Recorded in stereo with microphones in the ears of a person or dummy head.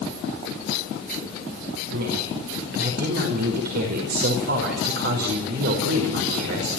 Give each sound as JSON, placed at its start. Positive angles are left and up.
{"t": 1.9, "sound": "a woman speaking", "side_deg": -60, "distance_m": 5.0}